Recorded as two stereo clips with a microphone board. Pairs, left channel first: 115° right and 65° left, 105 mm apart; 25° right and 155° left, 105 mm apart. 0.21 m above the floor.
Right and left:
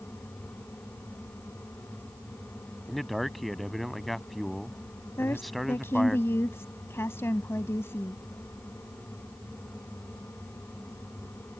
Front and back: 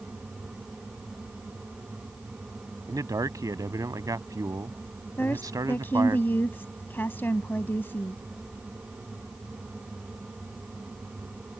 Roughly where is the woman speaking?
Right.